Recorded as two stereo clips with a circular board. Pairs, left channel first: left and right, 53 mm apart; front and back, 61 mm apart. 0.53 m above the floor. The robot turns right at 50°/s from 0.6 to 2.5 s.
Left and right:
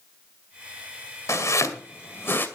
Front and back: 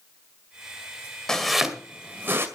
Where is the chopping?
80° left, 2 m; by 2.5 s 140° left, 2 m.